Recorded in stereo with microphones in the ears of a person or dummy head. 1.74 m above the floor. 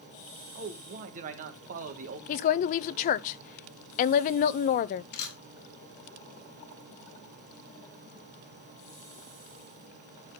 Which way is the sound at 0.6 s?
45° right (ahead or behind).